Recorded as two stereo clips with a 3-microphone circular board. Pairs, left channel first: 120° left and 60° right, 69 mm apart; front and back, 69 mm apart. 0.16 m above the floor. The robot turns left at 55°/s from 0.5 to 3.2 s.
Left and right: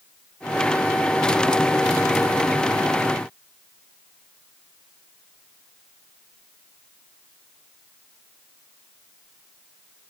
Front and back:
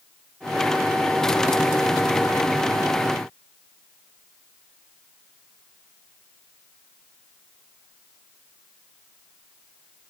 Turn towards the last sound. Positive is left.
No sound to turn to.